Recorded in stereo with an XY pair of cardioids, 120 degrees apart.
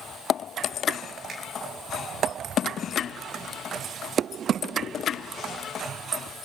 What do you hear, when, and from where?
1.3 s a finger snap: 40° right, 5.5 m